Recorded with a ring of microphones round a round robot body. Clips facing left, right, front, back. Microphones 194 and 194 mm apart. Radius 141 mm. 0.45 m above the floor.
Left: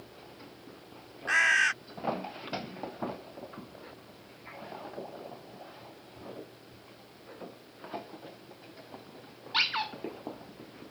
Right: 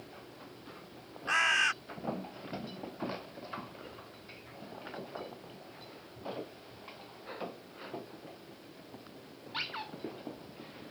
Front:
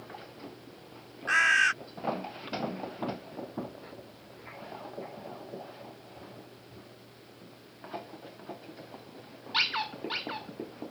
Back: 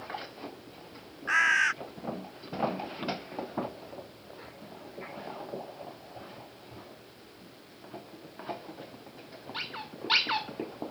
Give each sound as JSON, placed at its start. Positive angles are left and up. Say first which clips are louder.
{"t": 1.3, "sound": "a bird", "louder": "left 2 dB, front 1 dB", "azimuth_deg": 15}